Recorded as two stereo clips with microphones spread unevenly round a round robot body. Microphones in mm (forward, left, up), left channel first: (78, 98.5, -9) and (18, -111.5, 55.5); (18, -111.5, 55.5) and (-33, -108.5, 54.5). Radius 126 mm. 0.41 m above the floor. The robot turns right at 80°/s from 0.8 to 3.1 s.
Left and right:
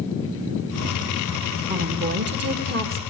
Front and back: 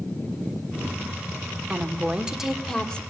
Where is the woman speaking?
165° right, 1.5 m; by 3.0 s 60° right, 1.5 m.